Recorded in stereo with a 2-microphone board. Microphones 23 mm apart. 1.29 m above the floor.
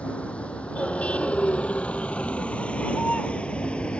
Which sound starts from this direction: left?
A vehicle, at 0.0 s.